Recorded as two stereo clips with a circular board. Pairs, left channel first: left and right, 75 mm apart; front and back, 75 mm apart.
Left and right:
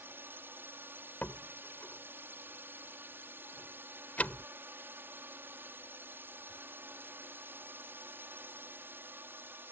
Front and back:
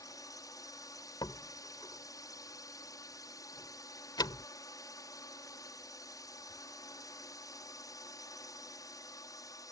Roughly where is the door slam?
Ahead.